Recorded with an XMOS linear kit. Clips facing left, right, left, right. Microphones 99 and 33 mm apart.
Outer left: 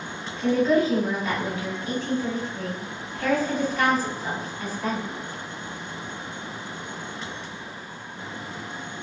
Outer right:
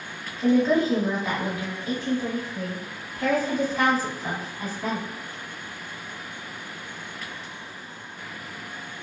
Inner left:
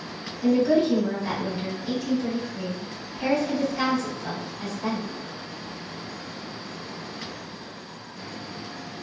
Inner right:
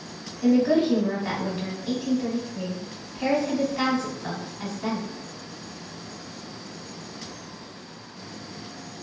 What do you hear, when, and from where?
0.4 s a woman speaking: 30° right (ahead or behind), 1.4 m